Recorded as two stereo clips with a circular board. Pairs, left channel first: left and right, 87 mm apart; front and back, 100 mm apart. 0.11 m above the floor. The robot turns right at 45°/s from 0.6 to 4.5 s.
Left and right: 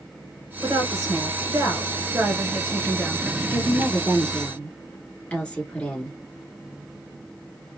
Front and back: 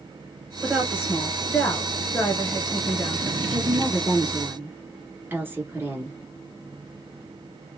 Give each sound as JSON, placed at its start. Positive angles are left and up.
{"t": 0.6, "sound": "a woman speaking", "azimuth_deg": -125, "distance_m": 1.6}
{"t": 3.5, "sound": "a woman speaking", "azimuth_deg": 100, "distance_m": 1.2}